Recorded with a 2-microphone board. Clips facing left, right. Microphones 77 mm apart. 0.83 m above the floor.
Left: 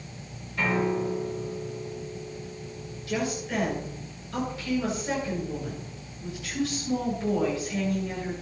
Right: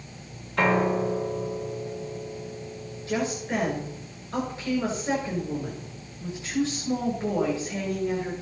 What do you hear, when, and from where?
0.6 s a piano: 80° right, 1.7 m
3.1 s a woman speaking: 25° right (ahead or behind), 9.5 m